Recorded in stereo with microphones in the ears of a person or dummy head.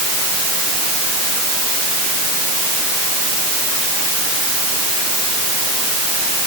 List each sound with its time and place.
Only background noise.